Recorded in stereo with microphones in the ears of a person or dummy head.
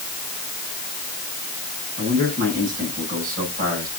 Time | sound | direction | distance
2.0 | a man speaking | 45° right (ahead or behind) | 9.5 m